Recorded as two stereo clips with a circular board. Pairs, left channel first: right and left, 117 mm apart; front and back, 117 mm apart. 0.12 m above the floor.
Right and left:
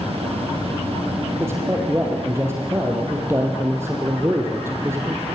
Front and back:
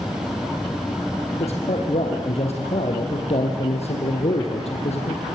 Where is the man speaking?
20° left, 4 m.